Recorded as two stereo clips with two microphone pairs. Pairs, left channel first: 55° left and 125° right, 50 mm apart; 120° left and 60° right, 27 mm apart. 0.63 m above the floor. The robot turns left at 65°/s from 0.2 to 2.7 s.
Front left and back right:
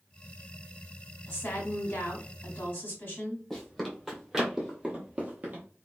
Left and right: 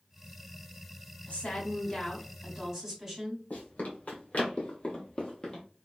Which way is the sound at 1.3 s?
100° left.